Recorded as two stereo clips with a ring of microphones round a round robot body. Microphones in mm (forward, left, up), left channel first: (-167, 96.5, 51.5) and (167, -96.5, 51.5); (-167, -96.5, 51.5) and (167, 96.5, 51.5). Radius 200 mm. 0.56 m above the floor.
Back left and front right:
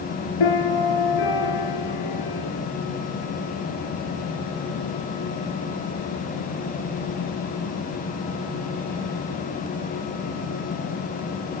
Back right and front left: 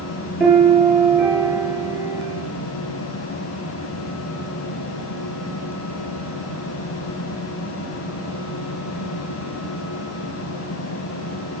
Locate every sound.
0.4 s a piano: 120° left, 7.5 m